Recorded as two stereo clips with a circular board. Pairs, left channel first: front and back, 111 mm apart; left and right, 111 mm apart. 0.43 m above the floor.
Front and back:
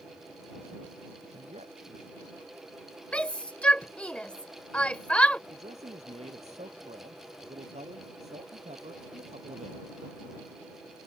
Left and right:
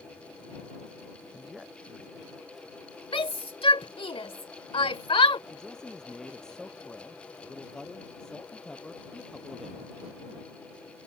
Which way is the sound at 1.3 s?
175° right.